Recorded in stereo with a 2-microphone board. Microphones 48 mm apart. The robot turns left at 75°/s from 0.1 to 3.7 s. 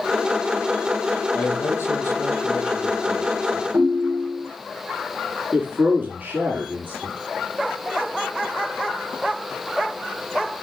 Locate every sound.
1.3 s a man speaking: 140° left, 5.5 m; by 3.6 s 35° right, 5.5 m
3.7 s a ringtone: 70° right (ahead or behind), 3 m
5.5 s a man speaking: 35° right (ahead or behind), 2.0 m